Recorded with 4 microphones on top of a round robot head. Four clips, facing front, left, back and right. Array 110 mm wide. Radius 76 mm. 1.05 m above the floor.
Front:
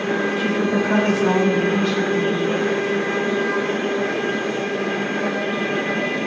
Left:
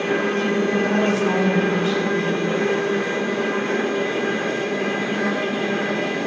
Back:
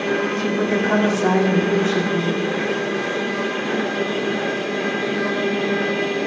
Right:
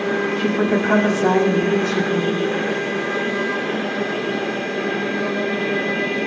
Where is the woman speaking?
110° right, 2 m; by 2.5 s 145° right, 2.5 m.